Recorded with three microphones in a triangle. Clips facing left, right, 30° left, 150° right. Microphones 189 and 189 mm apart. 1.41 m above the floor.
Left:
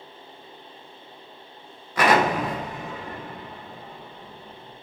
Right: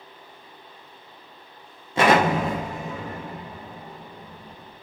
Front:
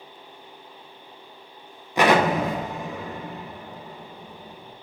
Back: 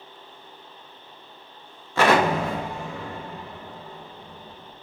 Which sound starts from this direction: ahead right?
An explosion, at 2.0 s.